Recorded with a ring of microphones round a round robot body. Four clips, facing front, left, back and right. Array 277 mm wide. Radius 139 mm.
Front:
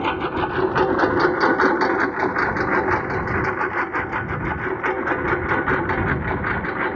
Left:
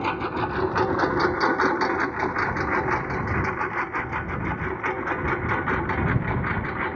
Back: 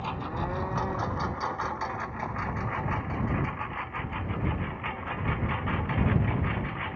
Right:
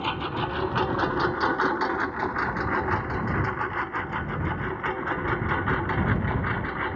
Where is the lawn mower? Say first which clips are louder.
Left 3 dB, front 11 dB; 15° left; by 7.0 s 5° left.